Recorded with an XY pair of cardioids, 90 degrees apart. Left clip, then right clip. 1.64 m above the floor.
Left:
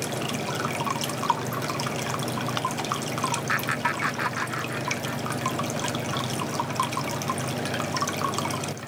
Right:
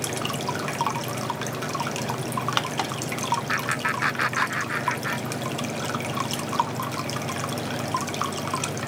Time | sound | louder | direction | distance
3.5 | laughter | even | 10° left | ?